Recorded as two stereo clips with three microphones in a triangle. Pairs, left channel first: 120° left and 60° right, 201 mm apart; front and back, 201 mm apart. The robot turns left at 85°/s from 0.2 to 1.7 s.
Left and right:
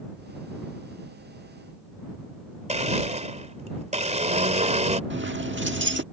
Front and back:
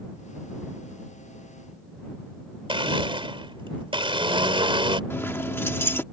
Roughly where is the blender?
Behind right.